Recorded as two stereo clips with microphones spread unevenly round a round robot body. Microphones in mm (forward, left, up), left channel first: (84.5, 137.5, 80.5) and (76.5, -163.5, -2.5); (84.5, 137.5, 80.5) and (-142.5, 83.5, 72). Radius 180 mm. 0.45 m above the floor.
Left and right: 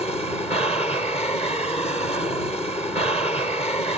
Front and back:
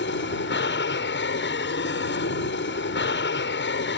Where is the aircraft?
10° left.